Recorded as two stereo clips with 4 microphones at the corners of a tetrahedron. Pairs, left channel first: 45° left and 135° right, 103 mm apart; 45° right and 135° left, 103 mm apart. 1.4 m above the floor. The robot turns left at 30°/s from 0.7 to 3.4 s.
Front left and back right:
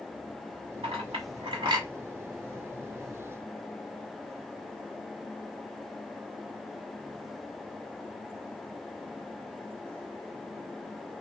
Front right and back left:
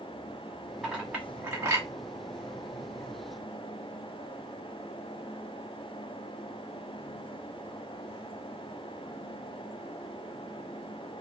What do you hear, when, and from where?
0.8 s a clink: 135° right, 1.4 m; by 1.9 s 170° right, 1.4 m